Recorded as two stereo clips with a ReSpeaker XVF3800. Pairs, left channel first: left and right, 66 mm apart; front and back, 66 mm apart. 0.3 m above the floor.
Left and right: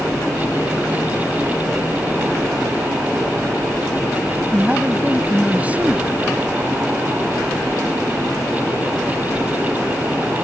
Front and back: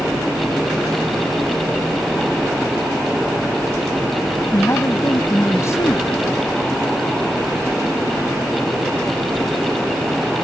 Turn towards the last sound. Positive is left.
turn(degrees=-25)